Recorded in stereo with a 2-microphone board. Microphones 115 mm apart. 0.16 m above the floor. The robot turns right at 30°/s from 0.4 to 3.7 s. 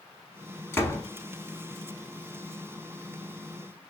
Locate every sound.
0.7 s a door slam: 20° left (ahead or behind), 1.0 m; by 1.0 s 25° left (ahead or behind), 1.0 m